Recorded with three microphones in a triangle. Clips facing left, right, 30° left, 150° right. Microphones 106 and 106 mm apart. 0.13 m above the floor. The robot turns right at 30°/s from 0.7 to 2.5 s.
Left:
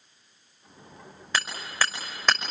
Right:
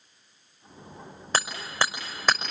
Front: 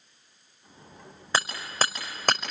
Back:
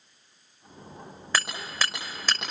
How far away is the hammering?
About 5.5 m.